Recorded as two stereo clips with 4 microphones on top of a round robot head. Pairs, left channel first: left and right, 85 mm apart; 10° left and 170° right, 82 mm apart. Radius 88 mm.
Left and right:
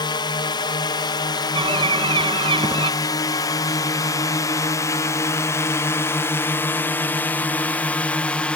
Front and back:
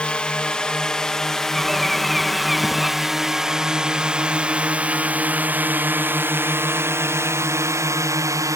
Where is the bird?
80° right.